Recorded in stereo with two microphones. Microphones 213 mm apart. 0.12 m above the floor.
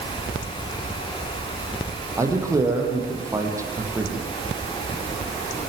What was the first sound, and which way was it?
A man speaking, 15° right (ahead or behind).